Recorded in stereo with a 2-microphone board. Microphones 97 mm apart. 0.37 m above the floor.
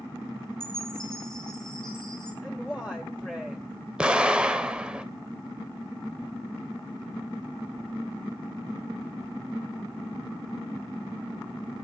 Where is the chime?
5° left (ahead or behind), 6.5 m.